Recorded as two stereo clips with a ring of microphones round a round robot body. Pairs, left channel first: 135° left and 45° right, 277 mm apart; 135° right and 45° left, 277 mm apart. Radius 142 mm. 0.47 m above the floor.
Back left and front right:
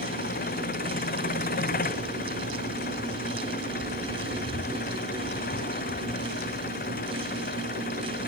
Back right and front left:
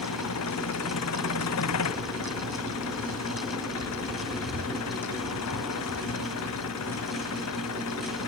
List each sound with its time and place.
0.0 s an engine running: 165° right